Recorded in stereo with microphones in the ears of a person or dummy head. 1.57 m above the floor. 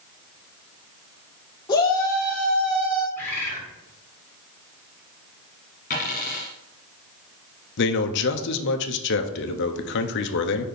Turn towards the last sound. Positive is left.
turn(degrees=60)  # may be behind; listen again after turning